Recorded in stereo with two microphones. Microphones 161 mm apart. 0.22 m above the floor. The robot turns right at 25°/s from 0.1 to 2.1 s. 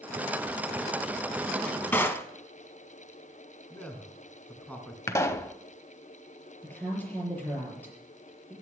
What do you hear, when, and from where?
1.4 s a drawer: 5° left (ahead or behind), 0.9 m; by 2.3 s 15° left (ahead or behind), 0.9 m
3.7 s a man speaking: 10° left (ahead or behind), 2.5 m
5.1 s a pop: 20° left (ahead or behind), 0.7 m
6.6 s a woman speaking: 10° left (ahead or behind), 5.5 m